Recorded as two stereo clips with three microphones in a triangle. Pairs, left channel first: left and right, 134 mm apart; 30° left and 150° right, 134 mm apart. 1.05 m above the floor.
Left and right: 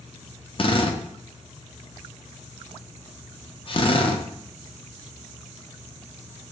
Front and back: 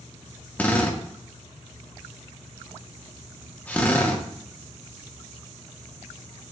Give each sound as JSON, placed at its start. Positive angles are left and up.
{"t": 0.6, "sound": "a drill", "azimuth_deg": 100, "distance_m": 0.6}